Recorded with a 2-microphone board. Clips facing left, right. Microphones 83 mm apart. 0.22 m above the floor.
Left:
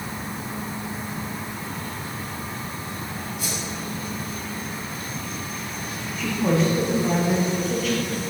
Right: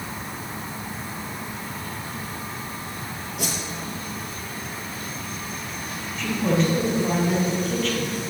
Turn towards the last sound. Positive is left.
turn(degrees=10)  # may be behind; listen again after turning